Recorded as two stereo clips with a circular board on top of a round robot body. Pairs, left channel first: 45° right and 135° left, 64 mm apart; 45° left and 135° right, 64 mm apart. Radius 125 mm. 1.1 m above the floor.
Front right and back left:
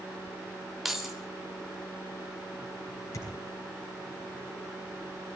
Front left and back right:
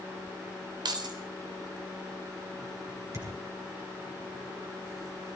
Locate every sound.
0.8 s keys jangling: 140° right, 2.5 m
3.1 s a thud: 90° right, 5 m